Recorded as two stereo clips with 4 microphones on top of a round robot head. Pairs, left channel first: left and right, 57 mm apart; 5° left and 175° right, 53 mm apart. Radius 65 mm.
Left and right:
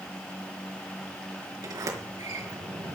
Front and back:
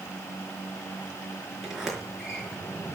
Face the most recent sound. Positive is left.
turn(degrees=-90)